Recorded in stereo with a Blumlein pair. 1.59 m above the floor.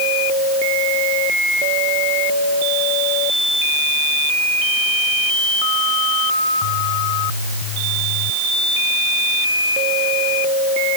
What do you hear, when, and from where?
Only background noise.